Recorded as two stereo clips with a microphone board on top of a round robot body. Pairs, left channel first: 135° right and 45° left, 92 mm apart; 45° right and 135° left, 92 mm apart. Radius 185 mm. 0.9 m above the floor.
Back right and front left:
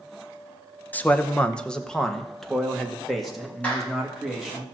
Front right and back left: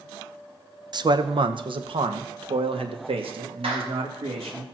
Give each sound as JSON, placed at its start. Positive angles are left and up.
{"t": 0.9, "sound": "a man speaking", "azimuth_deg": 160, "distance_m": 1.0}
{"t": 3.6, "sound": "a clap", "azimuth_deg": 150, "distance_m": 3.5}